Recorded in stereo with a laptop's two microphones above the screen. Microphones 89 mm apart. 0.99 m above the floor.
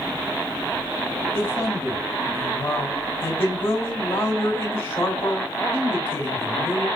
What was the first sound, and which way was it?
A man speaking, 25° left (ahead or behind).